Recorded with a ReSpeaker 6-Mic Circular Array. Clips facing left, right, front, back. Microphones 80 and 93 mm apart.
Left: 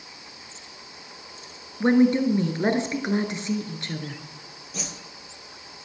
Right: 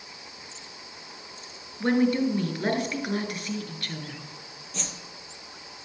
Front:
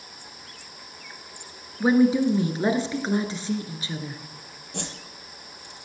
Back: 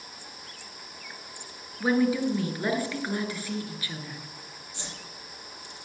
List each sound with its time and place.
1.8 s a woman speaking: 45° left, 1.3 m
4.7 s a whoosh: 5° left, 1.5 m